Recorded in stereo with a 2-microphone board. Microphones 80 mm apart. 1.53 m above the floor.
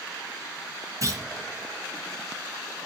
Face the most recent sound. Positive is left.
turn(degrees=-40)  # may be behind; listen again after turning